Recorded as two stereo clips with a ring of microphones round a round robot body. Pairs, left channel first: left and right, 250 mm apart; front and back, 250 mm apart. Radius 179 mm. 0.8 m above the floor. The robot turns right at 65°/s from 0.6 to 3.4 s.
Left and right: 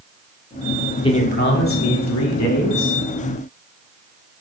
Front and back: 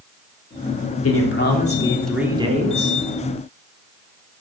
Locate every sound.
1.0 s a man speaking: 20° left, 2.5 m; by 3.0 s 145° left, 2.5 m